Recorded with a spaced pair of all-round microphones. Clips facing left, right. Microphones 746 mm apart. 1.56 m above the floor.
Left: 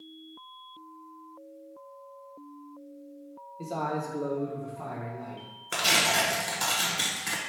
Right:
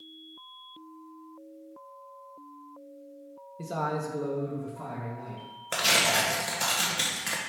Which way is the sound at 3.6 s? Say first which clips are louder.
Even; 50° right (ahead or behind).